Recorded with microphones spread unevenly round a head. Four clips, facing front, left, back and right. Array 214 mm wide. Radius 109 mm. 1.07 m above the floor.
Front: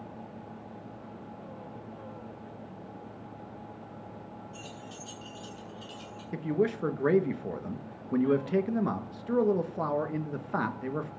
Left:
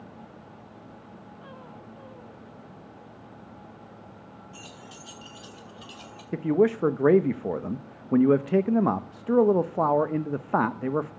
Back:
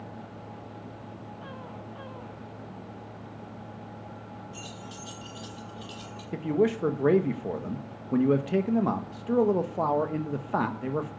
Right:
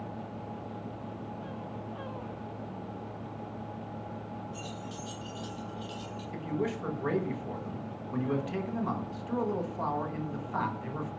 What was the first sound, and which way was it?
Keys jangling, 105° left.